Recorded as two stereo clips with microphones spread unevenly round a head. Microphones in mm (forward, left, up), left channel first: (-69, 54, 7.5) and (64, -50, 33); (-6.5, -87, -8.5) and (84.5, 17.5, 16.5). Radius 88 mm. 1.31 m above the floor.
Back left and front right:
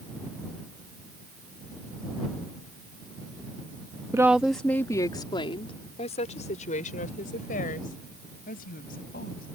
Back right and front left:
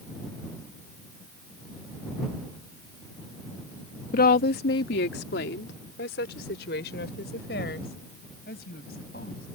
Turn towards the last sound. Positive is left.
turn(degrees=-175)